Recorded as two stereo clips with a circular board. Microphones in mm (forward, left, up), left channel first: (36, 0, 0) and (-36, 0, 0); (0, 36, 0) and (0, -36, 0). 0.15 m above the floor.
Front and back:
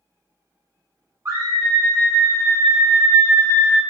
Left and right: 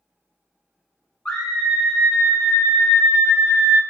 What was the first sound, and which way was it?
A scream, 155° left.